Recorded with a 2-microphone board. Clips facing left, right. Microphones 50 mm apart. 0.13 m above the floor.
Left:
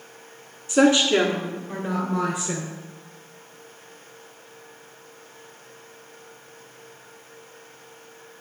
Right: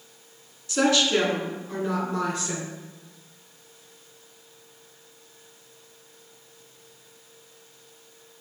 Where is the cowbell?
I don't hear a cowbell.